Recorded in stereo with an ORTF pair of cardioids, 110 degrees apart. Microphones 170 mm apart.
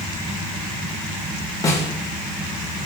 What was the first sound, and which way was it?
A snare drum, 20° left.